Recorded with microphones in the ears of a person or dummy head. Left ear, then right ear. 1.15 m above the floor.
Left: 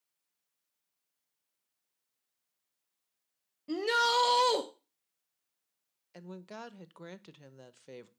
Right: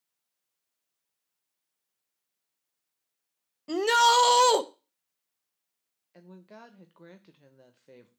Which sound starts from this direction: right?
A shout, at 3.7 s.